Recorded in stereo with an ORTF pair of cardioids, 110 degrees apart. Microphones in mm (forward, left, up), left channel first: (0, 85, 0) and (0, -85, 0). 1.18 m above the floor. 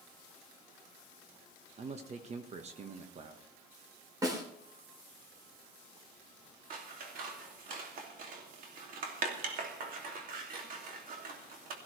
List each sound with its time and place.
1.8 s a man speaking: 40° right, 1.5 m
4.2 s a snare drum: 20° right, 3.5 m
6.7 s scissors: 55° right, 2.5 m